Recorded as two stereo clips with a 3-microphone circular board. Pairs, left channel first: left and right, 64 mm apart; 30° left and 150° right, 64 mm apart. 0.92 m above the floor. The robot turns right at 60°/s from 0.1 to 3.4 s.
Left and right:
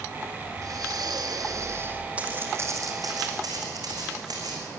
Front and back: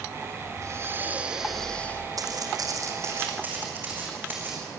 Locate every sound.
0.6 s breathing: 120° right, 1.5 m; by 2.1 s 25° right, 1.5 m
2.2 s footsteps: 160° right, 3 m; by 4.7 s 90° right, 4.5 m